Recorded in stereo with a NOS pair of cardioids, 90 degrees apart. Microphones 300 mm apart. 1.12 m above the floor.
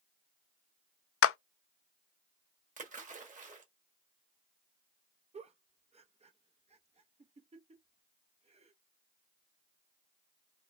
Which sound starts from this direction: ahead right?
A splash, at 2.8 s.